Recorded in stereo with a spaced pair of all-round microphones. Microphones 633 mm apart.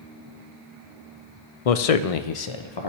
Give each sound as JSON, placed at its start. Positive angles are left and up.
{"t": 1.6, "sound": "a man speaking", "side_deg": 65, "distance_m": 0.6}